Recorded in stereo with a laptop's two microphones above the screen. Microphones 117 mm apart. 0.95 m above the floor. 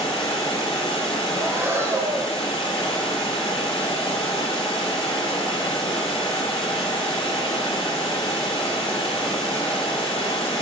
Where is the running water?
40° left (ahead or behind), 1.7 m.